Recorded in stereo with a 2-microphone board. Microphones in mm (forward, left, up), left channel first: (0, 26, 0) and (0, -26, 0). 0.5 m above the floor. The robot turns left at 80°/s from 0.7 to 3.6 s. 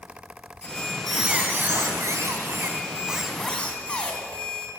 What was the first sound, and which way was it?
A squeak, 35° left.